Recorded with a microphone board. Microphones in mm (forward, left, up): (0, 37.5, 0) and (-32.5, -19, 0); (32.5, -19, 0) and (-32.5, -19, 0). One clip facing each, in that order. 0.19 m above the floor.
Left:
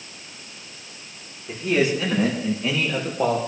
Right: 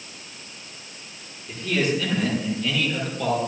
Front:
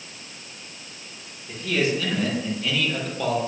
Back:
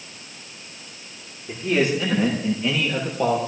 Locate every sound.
1.5 s a man speaking: 115° left, 6 m; by 3.4 s 110° left, 5.5 m